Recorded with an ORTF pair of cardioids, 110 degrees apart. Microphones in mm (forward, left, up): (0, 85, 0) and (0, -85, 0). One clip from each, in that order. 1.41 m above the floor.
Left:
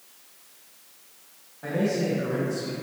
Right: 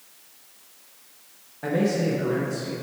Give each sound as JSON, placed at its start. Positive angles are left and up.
{"t": 1.6, "sound": "a man speaking", "azimuth_deg": -30, "distance_m": 1.5}